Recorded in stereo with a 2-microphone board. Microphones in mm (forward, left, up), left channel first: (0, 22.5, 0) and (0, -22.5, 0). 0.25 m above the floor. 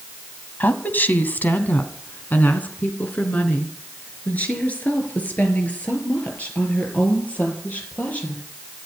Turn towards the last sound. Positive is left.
turn(degrees=30)  # may be behind; listen again after turning